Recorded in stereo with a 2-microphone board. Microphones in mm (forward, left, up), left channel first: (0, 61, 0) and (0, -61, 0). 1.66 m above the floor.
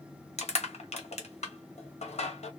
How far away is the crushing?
About 1.1 m.